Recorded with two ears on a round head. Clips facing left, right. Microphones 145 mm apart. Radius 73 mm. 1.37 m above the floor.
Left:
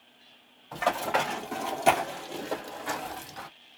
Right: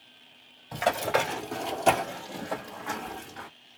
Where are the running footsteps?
20° right (ahead or behind), 1.6 m; by 3.5 s 50° left (ahead or behind), 2 m.